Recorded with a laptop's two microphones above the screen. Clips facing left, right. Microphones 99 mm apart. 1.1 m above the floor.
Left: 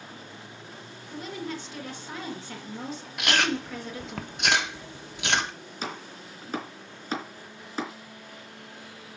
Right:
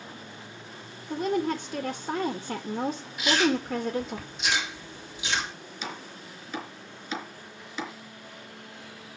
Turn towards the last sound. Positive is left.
turn(degrees=40)  # may be behind; listen again after turning